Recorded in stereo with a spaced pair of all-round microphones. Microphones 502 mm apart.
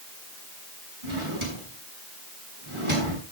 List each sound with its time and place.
1.0 s a drawer: 80° right, 6.5 m